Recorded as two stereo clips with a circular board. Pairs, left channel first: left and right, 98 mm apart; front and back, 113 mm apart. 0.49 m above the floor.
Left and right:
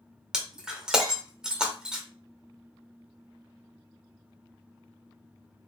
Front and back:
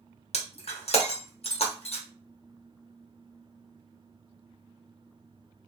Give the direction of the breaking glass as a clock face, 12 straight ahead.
12 o'clock.